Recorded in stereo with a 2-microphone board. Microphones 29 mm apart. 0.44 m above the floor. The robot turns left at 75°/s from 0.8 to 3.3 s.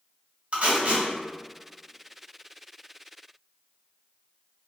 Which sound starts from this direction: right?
Tape being pulled, at 0.5 s.